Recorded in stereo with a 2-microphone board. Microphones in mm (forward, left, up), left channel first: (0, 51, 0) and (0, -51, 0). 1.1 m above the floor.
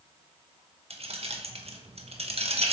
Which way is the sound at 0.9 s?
80° right.